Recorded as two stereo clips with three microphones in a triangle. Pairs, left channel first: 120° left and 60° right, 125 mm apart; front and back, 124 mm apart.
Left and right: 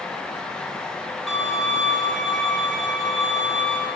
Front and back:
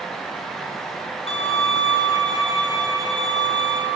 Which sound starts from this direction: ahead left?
A violin, at 1.3 s.